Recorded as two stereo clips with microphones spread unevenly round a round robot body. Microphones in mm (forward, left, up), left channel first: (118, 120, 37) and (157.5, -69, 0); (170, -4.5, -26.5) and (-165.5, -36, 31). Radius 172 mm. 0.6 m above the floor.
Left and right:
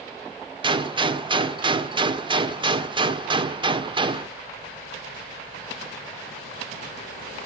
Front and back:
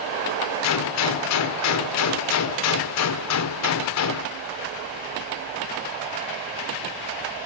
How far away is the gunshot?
About 1.9 m.